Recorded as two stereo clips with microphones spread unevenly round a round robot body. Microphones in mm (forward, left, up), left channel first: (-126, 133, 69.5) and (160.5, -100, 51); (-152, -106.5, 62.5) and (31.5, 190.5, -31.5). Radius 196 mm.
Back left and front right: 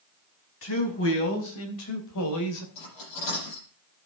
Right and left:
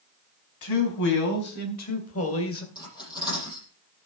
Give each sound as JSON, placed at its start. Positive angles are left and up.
{"t": 0.6, "sound": "a man speaking", "azimuth_deg": -160, "distance_m": 5.0}
{"t": 2.8, "sound": "cutlery clinking", "azimuth_deg": 160, "distance_m": 9.5}